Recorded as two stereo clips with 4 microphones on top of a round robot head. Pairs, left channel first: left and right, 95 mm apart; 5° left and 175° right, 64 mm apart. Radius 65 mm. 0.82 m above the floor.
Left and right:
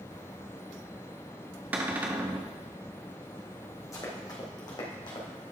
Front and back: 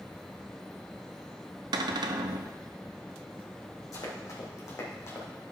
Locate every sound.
1.7 s a cupboard door: 165° right, 0.8 m
3.9 s running footsteps: 35° left, 3 m; by 5.3 s 55° left, 3.5 m